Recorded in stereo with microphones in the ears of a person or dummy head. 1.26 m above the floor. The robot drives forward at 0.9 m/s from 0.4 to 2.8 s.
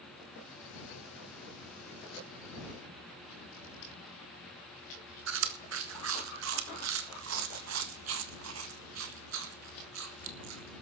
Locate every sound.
5.3 s chewing: 75° right (ahead or behind), 1.5 m